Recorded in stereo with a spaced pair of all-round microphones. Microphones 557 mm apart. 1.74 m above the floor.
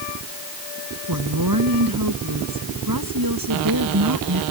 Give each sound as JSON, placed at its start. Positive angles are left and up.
{"t": 1.1, "sound": "a woman speaking", "side_deg": -35}